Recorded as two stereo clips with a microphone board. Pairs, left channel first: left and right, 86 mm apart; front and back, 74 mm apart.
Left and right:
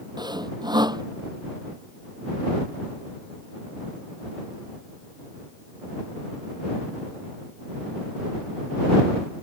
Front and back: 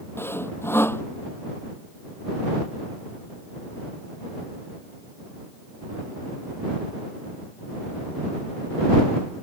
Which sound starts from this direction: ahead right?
Sawing, at 0.2 s.